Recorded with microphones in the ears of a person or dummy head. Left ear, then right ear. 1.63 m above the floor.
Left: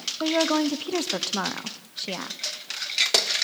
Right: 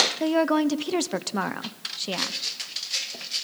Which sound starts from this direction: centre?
A woman speaking, at 0.2 s.